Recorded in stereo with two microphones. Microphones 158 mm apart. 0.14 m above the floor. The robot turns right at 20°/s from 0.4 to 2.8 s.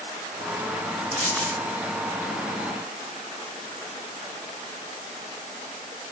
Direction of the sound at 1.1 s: 50° right (ahead or behind).